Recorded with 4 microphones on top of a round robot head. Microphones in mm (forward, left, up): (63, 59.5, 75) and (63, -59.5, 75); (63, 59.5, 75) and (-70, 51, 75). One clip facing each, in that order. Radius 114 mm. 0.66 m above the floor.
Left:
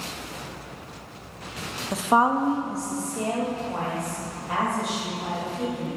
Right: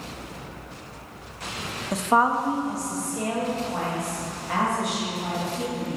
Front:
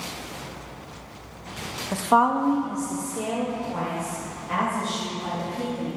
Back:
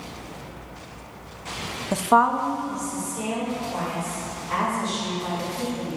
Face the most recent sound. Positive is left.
turn(degrees=25)